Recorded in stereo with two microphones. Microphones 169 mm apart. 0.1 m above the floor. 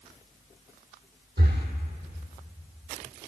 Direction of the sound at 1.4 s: 75° right (ahead or behind).